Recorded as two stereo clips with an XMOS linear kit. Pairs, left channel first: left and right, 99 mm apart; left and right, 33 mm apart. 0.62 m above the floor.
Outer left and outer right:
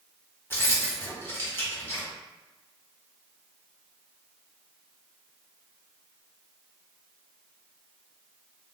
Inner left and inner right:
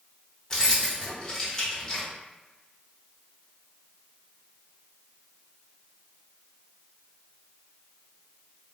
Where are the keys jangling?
25° left (ahead or behind), 0.9 m.